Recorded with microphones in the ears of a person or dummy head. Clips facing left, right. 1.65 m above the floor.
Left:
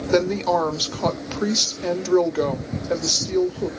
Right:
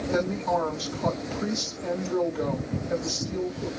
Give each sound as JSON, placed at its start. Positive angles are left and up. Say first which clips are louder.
{"t": 0.1, "sound": "a woman speaking", "louder": "left 7 dB", "side_deg": 75, "distance_m": 0.9}